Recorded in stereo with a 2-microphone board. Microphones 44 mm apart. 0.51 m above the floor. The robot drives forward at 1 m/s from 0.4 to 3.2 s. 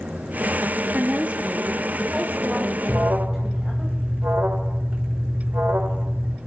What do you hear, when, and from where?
0.9 s a woman speaking: 35° right (ahead or behind), 0.9 m; by 3.9 s 10° right (ahead or behind), 2.5 m
2.9 s an alarm: 55° right (ahead or behind), 1.4 m; by 6.4 s 60° right (ahead or behind), 1.3 m